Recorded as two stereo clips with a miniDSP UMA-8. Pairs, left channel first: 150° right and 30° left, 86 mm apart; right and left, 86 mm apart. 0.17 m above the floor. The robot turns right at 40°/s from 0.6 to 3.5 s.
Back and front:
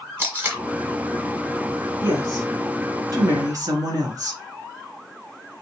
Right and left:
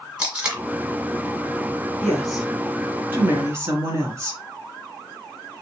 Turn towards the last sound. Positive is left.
turn(degrees=45)